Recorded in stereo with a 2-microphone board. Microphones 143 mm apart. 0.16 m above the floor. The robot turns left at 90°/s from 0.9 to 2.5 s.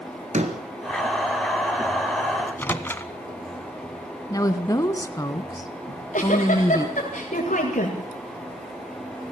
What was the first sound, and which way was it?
A door slam, 55° right (ahead or behind).